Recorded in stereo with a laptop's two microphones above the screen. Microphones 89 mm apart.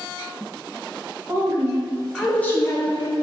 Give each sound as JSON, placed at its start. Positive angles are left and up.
{"t": 1.3, "sound": "a woman speaking", "side_deg": -35, "distance_m": 0.8}